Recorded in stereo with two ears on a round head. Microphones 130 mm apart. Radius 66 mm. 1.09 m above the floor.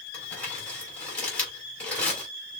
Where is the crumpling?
10° left (ahead or behind), 4 m.